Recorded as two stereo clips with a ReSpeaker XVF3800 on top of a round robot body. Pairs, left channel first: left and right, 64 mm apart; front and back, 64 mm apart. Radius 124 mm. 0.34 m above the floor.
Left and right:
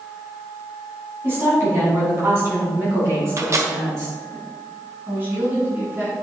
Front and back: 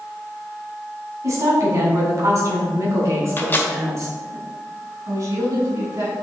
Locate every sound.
1.2 s a woman speaking: 145° right, 3.5 m; by 4.4 s 135° right, 5.5 m
3.4 s a microwave: 55° right, 1.6 m
5.1 s a woman speaking: 150° right, 4 m